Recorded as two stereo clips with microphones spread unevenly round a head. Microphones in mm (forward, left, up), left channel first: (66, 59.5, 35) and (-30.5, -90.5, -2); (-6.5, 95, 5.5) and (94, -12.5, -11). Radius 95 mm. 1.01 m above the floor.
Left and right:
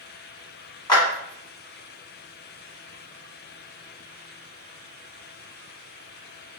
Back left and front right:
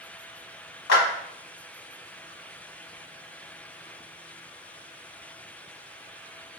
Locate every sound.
0.9 s a clap: 130° left, 1.2 m